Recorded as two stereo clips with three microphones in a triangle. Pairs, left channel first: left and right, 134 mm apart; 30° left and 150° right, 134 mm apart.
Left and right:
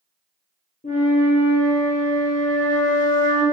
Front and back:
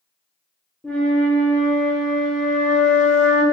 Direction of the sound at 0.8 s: 115° left.